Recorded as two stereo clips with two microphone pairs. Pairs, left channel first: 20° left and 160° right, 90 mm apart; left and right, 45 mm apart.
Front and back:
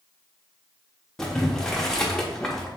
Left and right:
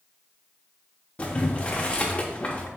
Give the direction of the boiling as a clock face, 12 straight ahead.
9 o'clock.